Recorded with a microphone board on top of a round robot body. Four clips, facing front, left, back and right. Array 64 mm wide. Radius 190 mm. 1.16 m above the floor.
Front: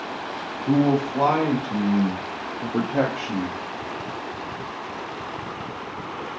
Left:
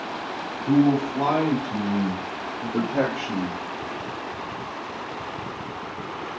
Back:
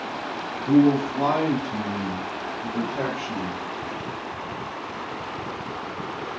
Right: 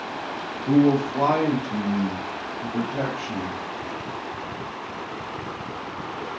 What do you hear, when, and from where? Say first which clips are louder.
0.7 s a man speaking: right 1 dB, back 2 dB; 45° right, 1.8 m; by 3.6 s 55° left, 0.9 m